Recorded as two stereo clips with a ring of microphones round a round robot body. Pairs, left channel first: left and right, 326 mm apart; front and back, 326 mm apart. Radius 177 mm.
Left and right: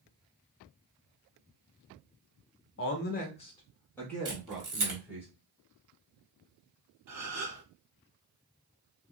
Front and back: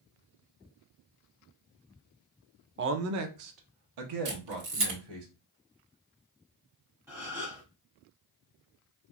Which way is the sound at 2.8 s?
130° left.